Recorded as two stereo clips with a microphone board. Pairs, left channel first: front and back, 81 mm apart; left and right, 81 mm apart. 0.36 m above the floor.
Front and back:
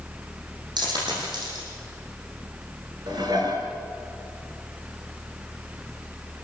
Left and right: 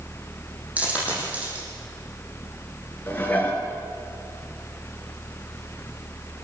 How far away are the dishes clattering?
About 3.5 m.